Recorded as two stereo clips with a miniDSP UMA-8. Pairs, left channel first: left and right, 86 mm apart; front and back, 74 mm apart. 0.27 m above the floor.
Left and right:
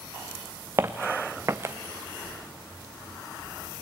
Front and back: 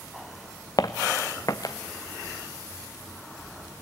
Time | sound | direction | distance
0.8 | footsteps | 30° right | 1.0 m